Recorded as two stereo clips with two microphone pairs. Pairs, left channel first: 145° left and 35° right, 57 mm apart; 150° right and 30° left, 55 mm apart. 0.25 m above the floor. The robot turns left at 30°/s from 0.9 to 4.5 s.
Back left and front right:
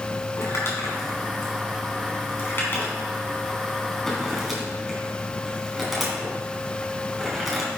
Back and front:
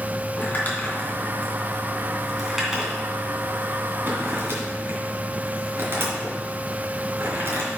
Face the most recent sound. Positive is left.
turn(degrees=50)